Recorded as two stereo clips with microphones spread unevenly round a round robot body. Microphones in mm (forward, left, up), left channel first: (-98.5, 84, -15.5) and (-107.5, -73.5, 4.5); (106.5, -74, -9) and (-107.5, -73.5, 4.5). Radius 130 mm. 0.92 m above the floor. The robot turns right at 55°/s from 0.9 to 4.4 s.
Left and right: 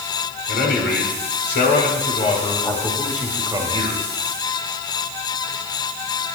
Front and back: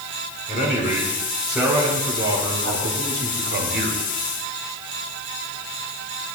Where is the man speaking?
55° left, 3.5 m; by 4.0 s 135° right, 3.5 m.